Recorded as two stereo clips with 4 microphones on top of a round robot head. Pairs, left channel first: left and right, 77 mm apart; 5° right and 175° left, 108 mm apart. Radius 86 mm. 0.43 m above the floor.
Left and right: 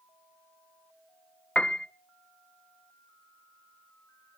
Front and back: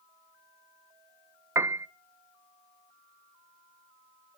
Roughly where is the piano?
Behind left.